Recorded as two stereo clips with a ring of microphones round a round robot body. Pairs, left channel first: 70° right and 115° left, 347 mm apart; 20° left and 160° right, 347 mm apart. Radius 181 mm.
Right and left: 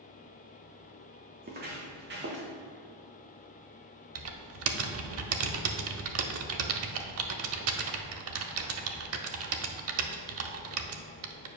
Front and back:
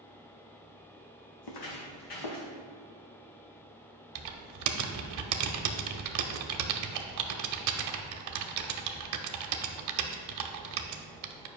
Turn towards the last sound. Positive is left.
turn(degrees=160)